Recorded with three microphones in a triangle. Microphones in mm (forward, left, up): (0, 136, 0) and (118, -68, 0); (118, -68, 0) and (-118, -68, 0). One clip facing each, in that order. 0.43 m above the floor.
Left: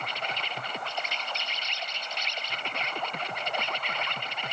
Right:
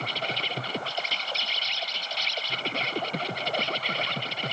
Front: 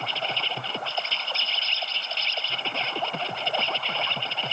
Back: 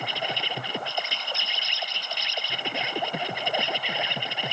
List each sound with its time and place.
0.0 s an insect: 105° right